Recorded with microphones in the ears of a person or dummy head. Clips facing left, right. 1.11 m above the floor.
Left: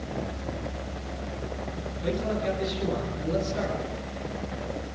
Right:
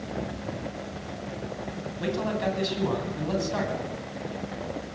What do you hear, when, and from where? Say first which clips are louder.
2.0 s a man speaking: right 1 dB; 85° right, 10 m